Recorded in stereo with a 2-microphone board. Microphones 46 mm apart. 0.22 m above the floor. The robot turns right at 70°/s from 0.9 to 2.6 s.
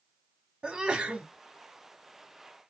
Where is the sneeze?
25° right (ahead or behind), 1.2 m; by 1.3 s 35° right (ahead or behind), 1.2 m.